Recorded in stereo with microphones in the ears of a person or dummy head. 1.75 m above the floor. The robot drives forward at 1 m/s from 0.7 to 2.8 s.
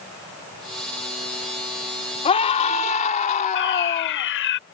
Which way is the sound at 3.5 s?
70° left (ahead or behind).